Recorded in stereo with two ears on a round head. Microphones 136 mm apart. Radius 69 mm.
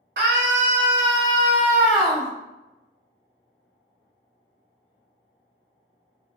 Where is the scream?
65° right (ahead or behind), 0.7 m; by 2.3 s centre (ahead or behind), 1.0 m.